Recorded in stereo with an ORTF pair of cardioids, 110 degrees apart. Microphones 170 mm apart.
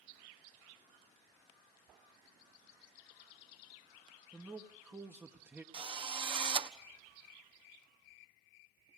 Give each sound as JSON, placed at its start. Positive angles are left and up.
{"t": 4.3, "sound": "a man speaking", "azimuth_deg": -10, "distance_m": 1.5}
{"t": 5.7, "sound": "a drill", "azimuth_deg": -30, "distance_m": 1.2}